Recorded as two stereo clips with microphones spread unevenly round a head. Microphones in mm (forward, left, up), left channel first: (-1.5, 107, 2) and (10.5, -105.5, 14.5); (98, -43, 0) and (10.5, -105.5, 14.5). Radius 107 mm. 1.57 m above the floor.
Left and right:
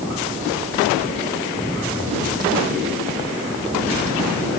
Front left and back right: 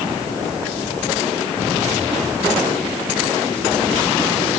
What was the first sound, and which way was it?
Only background noise.